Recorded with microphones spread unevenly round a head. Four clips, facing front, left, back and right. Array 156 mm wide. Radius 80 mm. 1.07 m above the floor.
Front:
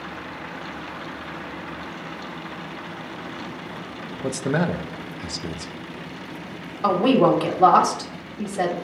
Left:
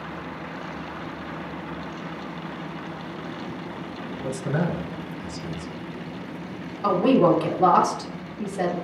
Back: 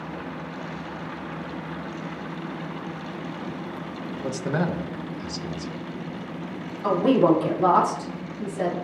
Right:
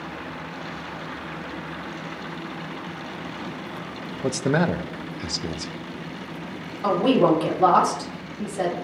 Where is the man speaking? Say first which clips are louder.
Right 5 dB, front 3 dB; 60° right, 0.8 m.